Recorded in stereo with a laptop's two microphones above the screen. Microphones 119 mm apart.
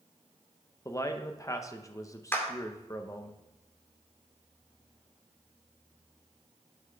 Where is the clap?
20° left (ahead or behind), 2.5 m.